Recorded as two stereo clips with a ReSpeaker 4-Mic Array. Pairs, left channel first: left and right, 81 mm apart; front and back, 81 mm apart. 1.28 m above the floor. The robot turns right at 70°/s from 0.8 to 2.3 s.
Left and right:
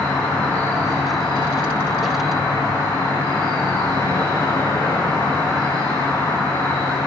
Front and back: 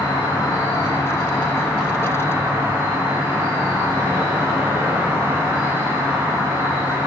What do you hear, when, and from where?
0.0 s an insect: 25° left, 1.7 m; by 7.1 s 130° left, 1.7 m